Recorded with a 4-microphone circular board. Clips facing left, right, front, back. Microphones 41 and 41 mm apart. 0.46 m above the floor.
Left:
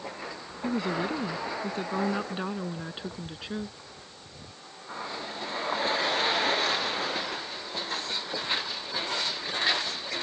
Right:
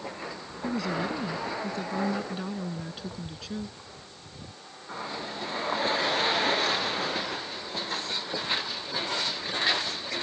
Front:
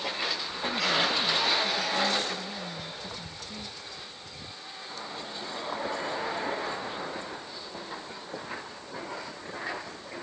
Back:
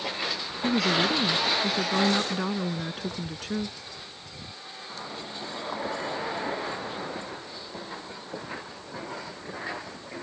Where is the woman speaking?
145° left; by 3.8 s 155° left.